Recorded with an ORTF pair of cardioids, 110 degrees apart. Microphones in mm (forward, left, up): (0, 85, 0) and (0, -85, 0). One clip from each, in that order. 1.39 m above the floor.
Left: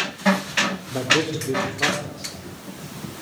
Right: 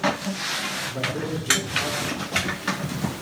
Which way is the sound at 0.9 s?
60° left.